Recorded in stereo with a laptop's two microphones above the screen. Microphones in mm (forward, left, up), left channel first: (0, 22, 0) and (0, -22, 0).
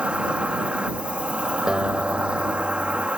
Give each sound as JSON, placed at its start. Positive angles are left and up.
{"t": 0.0, "sound": "an insect", "side_deg": -25}
{"t": 1.7, "sound": "a guitar", "side_deg": -15}